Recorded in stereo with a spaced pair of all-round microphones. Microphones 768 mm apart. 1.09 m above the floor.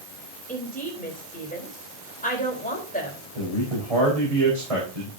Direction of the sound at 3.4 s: 45° right (ahead or behind).